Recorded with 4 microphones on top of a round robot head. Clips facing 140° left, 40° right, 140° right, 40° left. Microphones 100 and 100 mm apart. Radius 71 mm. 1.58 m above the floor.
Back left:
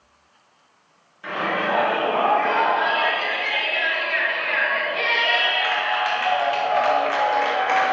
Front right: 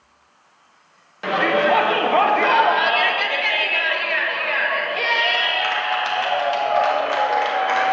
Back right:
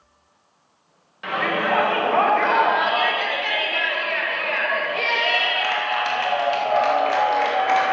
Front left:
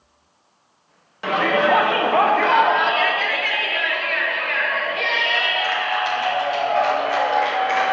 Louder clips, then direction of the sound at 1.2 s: Front right 6 dB, front left 5 dB; 20° right.